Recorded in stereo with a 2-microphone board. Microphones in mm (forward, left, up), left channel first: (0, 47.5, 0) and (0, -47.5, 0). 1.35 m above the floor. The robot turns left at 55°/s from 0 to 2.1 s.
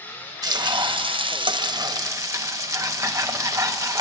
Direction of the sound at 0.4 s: 50° right.